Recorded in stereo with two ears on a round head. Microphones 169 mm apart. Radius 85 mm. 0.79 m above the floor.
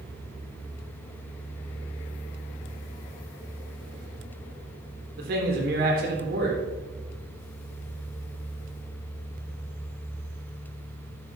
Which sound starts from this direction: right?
A man speaking, at 5.2 s.